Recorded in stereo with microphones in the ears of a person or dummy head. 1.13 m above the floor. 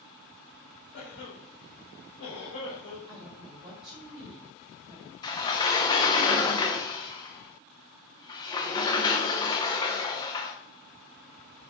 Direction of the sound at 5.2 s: 20° left (ahead or behind).